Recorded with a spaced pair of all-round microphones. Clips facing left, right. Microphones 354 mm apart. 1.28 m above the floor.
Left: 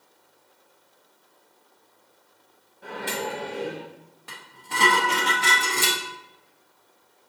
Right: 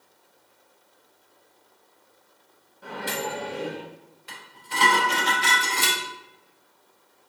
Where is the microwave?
5° right (ahead or behind), 1.2 m.